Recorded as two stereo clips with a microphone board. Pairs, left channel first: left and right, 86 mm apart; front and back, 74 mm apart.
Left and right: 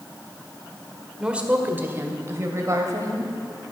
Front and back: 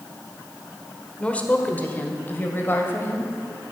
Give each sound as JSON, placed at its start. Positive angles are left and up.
{"t": 1.2, "sound": "a woman speaking", "azimuth_deg": -30, "distance_m": 1.4}